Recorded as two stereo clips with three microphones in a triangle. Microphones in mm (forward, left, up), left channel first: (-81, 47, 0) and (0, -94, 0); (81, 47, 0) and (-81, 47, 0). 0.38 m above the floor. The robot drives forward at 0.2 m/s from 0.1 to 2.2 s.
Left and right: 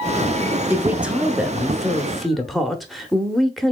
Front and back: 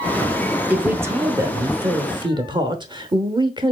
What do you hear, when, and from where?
0.7 s a man speaking: 115° right, 0.8 m; by 3.7 s 150° right, 0.9 m